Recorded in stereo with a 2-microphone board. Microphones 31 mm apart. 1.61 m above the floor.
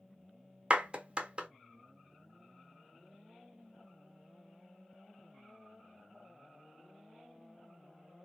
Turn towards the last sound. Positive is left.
turn(degrees=-30)  # may be behind; listen again after turning